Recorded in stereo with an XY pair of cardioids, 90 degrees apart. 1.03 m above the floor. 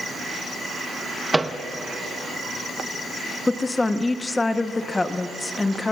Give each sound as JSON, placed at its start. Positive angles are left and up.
{"t": 1.3, "sound": "a microwave", "azimuth_deg": -15, "distance_m": 0.9}
{"t": 3.5, "sound": "a woman speaking", "azimuth_deg": 25, "distance_m": 1.0}